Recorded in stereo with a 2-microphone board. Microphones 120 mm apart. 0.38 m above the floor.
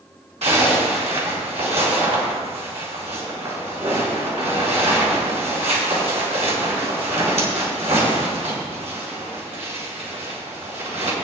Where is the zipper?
65° right (ahead or behind), 4 m.